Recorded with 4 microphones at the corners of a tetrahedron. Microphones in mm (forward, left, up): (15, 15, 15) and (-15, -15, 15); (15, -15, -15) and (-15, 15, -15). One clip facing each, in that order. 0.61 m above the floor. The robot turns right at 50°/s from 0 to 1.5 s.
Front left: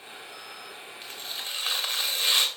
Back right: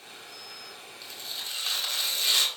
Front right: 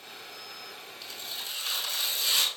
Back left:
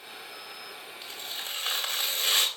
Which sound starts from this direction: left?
Tearing paper, at 1.0 s.